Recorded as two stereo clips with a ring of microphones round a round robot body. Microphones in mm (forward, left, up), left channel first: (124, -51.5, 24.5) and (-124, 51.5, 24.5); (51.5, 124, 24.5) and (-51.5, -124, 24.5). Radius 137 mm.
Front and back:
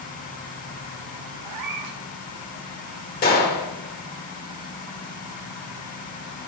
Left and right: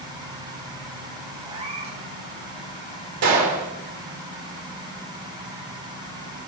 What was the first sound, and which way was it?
A cat meowing, straight behind.